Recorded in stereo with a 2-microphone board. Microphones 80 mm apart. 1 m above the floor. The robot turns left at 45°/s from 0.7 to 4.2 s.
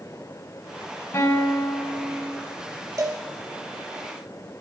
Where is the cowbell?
45° right (ahead or behind), 1.5 m; by 3.2 s 35° right (ahead or behind), 1.5 m.